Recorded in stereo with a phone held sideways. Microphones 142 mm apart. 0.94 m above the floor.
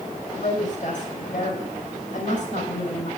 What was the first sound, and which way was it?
A woman speaking, 65° left (ahead or behind).